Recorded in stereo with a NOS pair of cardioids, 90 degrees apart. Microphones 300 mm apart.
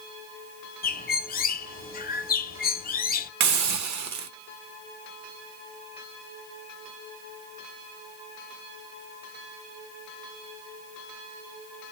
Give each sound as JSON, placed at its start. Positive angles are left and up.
{"t": 0.8, "sound": "a bird", "azimuth_deg": 30, "distance_m": 0.6}
{"t": 3.4, "sound": "a hiss", "azimuth_deg": -65, "distance_m": 0.8}